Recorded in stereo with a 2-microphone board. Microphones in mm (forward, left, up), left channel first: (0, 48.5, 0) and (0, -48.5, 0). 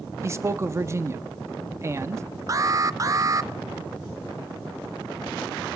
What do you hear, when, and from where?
0.2 s a man speaking: 30° right (ahead or behind), 1.0 m
2.5 s an alarm: 35° right (ahead or behind), 0.6 m